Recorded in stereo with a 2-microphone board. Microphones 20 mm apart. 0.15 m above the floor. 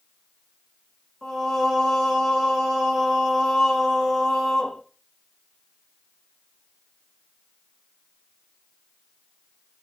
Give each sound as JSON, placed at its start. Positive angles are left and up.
{"t": 1.2, "sound": "singing", "side_deg": 20, "distance_m": 1.0}